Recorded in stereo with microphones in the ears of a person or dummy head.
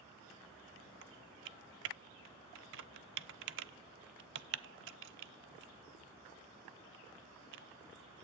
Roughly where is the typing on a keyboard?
Right.